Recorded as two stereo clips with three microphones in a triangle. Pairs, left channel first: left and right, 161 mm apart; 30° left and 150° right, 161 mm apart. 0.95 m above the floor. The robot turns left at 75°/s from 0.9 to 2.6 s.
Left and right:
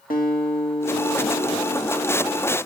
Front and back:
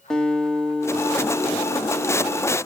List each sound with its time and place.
0.1 s a guitar: 115° left, 1.8 m; by 2.6 s 10° right, 1.8 m